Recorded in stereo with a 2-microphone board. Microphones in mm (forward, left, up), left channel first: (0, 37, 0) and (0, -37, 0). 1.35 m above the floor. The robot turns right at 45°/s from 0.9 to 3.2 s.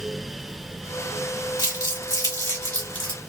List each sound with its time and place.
1.6 s crumpling: 85° left, 1.8 m; by 3.2 s 15° left (ahead or behind), 1.8 m